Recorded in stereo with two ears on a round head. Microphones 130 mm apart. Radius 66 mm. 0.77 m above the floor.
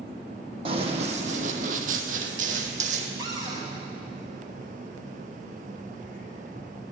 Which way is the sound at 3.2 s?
30° right (ahead or behind).